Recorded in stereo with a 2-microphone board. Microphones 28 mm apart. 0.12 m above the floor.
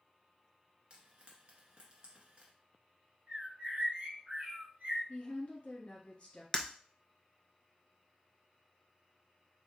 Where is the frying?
35° right (ahead or behind), 1.3 m.